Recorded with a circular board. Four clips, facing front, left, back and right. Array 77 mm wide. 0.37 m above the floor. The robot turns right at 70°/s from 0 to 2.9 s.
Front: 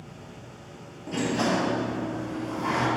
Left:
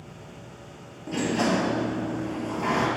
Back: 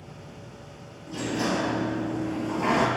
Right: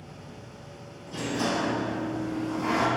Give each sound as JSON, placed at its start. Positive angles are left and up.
{"t": 1.1, "sound": "a sliding door", "azimuth_deg": 45, "distance_m": 1.2}